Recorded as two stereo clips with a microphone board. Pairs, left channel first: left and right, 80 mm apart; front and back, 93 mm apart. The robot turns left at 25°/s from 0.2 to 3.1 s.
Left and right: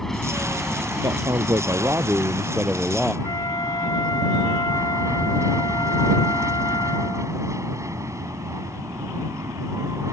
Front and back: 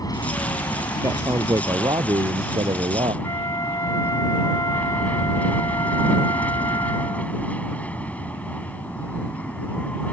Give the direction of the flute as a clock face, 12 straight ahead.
10 o'clock.